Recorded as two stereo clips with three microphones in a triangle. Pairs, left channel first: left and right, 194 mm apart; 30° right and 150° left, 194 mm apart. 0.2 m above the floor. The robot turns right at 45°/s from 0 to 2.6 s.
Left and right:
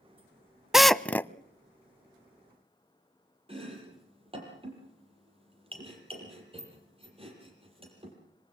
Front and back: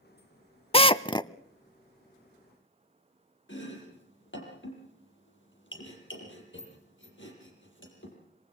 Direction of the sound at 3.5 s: 30° right.